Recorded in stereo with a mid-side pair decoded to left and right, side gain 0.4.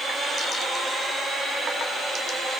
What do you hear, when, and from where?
Only background noise.